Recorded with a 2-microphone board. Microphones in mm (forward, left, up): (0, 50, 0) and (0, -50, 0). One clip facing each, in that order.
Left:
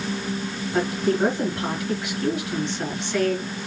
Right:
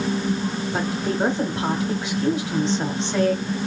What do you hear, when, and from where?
0.7 s a woman speaking: 30° right (ahead or behind), 1.4 m